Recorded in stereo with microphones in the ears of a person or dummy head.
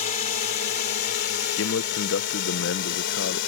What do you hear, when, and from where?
0.0 s a drone: 40° left (ahead or behind); by 3.5 s 60° left (ahead or behind)
1.6 s a man speaking: 60° left (ahead or behind)